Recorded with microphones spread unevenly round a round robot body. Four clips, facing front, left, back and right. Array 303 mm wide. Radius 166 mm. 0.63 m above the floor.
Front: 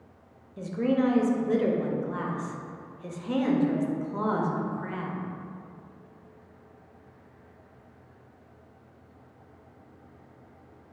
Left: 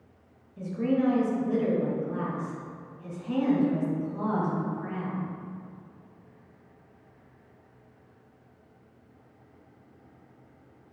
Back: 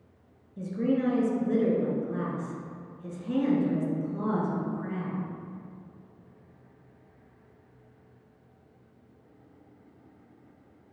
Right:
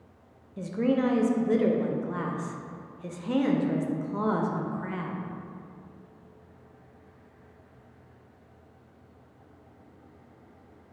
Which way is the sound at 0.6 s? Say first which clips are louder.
Right 1 dB, front 2 dB; 60° right.